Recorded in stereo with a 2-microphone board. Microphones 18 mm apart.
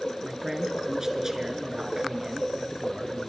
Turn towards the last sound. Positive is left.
turn(degrees=-25)  # may be behind; listen again after turning